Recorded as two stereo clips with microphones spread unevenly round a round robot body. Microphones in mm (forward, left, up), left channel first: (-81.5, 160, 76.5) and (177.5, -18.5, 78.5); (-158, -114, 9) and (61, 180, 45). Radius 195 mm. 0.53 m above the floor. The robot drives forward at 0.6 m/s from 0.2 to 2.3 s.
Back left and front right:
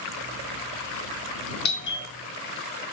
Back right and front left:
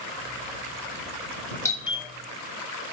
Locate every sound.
1.6 s a doorbell: 165° left, 1.2 m; by 2.1 s 170° left, 1.4 m